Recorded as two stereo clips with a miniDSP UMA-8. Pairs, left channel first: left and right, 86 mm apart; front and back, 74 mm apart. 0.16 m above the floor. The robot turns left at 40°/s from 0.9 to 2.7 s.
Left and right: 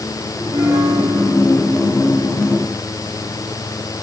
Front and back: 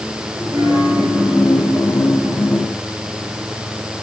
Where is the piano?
140° right, 6.5 m; by 2.6 s 150° left, 6.5 m.